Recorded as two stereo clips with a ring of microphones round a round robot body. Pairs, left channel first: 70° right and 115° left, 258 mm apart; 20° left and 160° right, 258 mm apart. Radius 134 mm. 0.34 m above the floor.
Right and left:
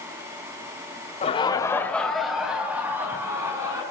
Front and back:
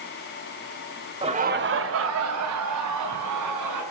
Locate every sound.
1.2 s laughter: 105° right, 1.2 m; by 3.8 s 170° right, 4 m